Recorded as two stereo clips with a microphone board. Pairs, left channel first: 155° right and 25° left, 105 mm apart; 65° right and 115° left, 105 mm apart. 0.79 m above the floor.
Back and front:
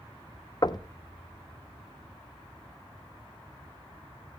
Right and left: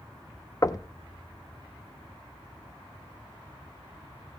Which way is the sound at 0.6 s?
115° right.